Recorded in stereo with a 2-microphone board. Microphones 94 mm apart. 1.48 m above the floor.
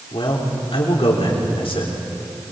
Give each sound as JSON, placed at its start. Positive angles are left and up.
{"t": 0.1, "sound": "a man speaking", "side_deg": 65, "distance_m": 3.5}